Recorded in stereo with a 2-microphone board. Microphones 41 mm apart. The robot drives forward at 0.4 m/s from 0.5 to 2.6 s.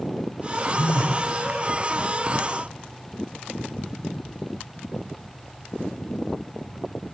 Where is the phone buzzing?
70° left (ahead or behind), 3.5 m.